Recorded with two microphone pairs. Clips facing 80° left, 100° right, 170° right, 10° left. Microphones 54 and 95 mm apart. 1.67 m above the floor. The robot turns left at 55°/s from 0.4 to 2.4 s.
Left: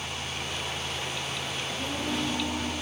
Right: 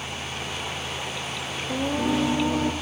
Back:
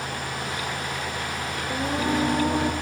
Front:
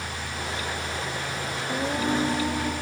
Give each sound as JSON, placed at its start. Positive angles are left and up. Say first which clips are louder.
{"t": 1.7, "sound": "singing", "louder": "right 9 dB, back 1 dB", "azimuth_deg": -70, "distance_m": 0.7}